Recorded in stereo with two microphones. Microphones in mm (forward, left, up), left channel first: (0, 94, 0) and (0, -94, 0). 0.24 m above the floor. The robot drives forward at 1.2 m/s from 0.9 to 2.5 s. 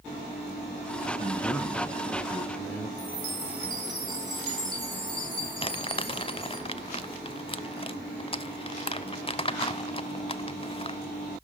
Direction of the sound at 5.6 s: 30° left (ahead or behind).